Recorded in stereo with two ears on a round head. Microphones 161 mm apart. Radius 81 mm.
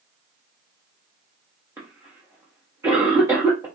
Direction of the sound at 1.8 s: 15° right (ahead or behind).